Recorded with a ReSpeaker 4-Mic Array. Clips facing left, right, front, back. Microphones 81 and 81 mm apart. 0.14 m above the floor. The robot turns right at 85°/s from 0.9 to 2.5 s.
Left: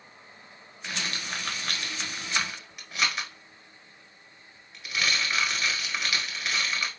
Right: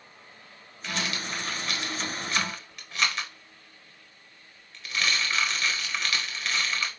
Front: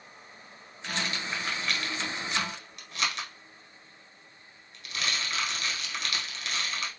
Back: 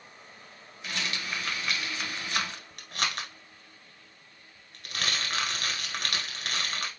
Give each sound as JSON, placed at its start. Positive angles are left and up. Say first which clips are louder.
{"t": 0.8, "sound": "a rattle", "louder": "right 2 dB, front 1 dB", "azimuth_deg": 35, "distance_m": 0.9}